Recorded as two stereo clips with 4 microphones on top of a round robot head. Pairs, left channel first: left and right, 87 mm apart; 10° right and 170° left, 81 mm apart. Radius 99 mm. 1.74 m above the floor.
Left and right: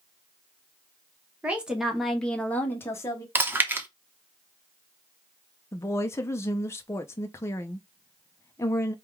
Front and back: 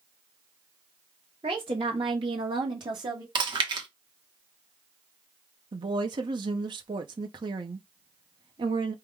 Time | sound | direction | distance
1.4 | a woman speaking | 165° right | 1.1 m
3.4 | chewing | 160° right | 0.9 m
5.7 | a woman speaking | 150° left | 0.6 m